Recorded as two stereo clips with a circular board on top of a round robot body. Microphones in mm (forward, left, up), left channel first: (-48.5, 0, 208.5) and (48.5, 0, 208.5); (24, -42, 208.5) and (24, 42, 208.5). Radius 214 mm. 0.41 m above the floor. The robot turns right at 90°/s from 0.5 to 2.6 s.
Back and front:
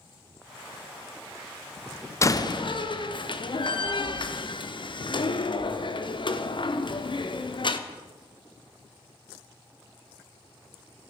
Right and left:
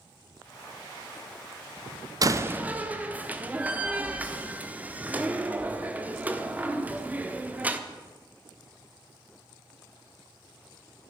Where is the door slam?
125° left, 1.3 m; by 7.8 s 160° left, 1.3 m.